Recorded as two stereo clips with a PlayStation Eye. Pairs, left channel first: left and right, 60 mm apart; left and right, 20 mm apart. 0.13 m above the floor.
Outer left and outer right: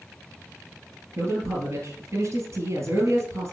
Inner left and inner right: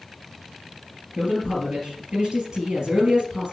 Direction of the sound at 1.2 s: 55° right (ahead or behind).